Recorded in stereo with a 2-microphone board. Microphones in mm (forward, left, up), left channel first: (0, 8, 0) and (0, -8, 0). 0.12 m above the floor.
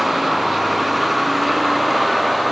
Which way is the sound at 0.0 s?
10° right (ahead or behind).